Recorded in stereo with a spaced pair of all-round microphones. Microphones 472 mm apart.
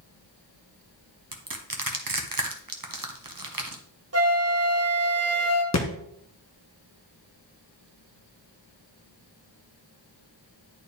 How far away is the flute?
About 0.9 m.